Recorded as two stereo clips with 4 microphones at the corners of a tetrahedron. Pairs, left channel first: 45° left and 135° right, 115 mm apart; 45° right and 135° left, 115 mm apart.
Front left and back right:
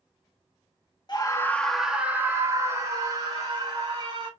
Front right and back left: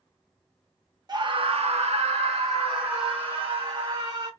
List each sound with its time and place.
1.1 s a scream: 90° left, 0.9 m; by 4.3 s straight behind, 3 m